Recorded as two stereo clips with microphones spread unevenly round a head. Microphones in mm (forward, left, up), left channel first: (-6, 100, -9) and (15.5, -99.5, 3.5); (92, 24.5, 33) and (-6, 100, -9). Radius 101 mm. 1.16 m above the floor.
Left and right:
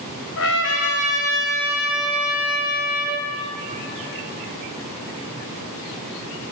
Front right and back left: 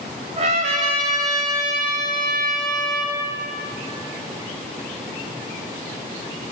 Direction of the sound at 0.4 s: 105° left.